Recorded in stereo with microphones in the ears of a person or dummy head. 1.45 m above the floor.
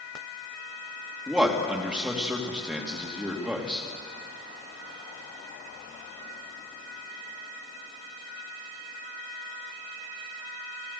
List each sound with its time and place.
1.3 s a man speaking: 10° right (ahead or behind), 3 m